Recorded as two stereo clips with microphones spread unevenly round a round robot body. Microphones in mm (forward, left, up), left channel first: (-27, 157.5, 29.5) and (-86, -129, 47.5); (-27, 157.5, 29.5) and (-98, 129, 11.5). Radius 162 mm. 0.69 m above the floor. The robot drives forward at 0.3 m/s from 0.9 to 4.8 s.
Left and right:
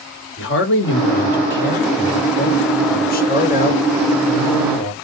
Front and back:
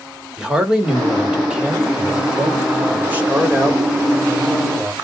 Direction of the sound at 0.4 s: 125° left.